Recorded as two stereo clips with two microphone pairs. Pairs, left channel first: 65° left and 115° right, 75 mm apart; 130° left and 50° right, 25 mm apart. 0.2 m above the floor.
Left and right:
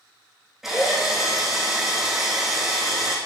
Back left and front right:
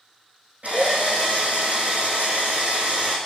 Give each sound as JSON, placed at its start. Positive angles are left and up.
{"t": 0.6, "sound": "a drill", "azimuth_deg": -30, "distance_m": 4.0}